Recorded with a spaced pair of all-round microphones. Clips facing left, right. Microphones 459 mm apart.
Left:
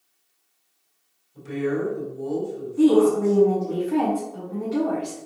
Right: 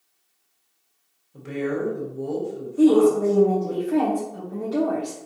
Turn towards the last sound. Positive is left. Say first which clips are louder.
# right 1 dB
turn(degrees=15)  # may be behind; listen again after turning